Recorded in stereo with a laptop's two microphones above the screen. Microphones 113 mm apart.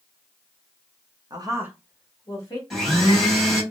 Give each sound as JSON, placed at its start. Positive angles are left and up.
{"t": 1.3, "sound": "a woman speaking", "side_deg": -40, "distance_m": 0.9}
{"t": 2.7, "sound": "a blender", "side_deg": 0, "distance_m": 1.9}